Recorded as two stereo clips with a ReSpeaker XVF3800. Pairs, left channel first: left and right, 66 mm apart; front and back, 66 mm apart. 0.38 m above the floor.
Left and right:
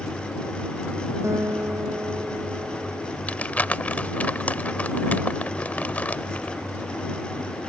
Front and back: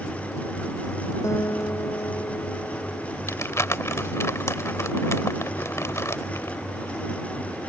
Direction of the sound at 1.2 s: 45° right.